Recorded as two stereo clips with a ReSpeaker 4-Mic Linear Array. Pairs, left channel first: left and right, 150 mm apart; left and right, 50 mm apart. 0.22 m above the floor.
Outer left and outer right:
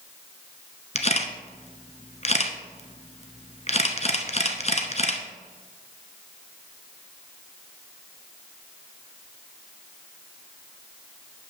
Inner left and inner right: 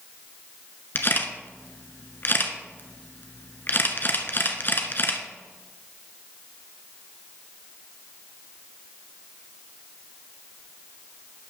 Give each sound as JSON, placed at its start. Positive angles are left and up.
{"t": 0.9, "sound": "a camera shutter", "side_deg": 45, "distance_m": 1.0}